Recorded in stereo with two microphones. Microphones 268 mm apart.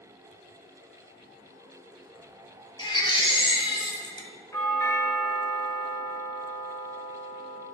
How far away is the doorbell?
About 1.3 m.